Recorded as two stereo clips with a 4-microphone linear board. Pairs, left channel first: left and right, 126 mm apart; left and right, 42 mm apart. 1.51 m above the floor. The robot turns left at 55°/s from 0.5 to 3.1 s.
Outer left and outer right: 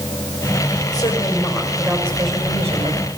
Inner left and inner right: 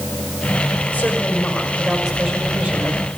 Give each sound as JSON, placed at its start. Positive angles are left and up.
{"t": 0.9, "sound": "a woman speaking", "azimuth_deg": 35, "distance_m": 5.5}